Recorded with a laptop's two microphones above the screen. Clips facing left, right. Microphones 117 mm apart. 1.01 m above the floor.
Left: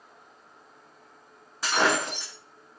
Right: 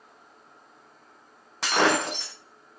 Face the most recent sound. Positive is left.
turn(degrees=-70)  # may be behind; listen again after turning